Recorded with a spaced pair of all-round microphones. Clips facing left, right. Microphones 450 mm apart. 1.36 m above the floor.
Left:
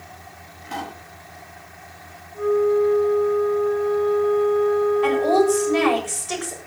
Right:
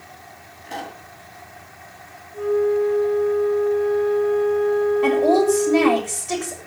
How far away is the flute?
About 4.5 m.